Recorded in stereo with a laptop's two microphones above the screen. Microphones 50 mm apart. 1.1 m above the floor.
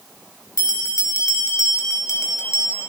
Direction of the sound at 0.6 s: 80° left.